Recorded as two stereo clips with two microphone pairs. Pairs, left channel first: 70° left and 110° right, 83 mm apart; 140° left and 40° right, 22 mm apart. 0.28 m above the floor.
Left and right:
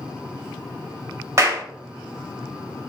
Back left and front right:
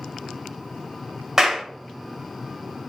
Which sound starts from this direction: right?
A clap, at 1.4 s.